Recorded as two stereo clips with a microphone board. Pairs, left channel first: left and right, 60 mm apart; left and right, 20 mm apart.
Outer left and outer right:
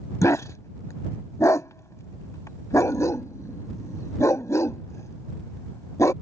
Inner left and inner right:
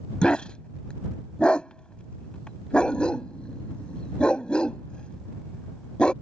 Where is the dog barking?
60° left (ahead or behind).